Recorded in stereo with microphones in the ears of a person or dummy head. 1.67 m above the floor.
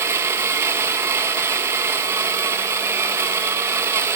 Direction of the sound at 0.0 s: 15° right (ahead or behind).